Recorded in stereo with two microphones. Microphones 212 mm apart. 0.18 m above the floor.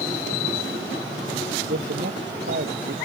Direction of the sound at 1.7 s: 60° right (ahead or behind).